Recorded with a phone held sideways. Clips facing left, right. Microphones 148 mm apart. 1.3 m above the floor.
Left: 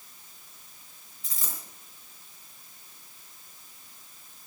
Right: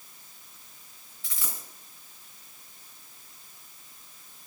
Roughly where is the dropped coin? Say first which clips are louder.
Even; left.